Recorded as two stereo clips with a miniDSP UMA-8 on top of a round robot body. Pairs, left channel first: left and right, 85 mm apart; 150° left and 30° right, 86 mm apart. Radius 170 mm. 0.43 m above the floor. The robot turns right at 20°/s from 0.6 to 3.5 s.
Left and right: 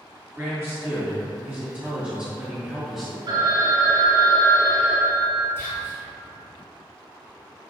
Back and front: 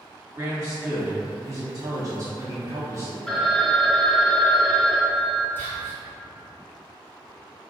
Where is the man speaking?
50° right, 1.4 m; by 3.2 s straight ahead, 1.4 m.